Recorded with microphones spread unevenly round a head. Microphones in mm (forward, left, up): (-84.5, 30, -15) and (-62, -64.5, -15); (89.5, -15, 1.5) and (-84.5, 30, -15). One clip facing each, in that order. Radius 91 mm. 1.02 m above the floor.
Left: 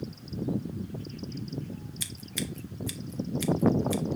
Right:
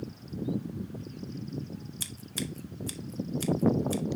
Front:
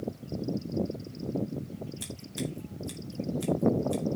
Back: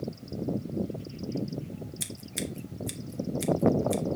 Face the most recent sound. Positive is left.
turn(degrees=-130)